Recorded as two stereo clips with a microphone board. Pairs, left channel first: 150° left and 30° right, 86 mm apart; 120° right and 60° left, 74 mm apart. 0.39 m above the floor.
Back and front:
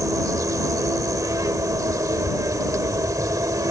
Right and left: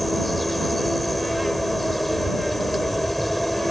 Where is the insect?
30° right.